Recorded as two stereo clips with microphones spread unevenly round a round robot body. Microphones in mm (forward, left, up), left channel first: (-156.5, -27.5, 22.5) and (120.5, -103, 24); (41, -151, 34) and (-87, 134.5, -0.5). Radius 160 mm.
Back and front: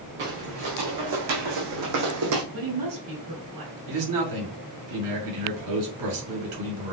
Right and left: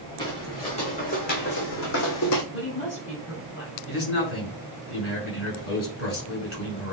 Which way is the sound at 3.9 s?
10° right.